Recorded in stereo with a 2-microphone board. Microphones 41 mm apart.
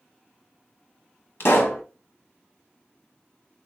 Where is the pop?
65° left (ahead or behind), 0.6 m.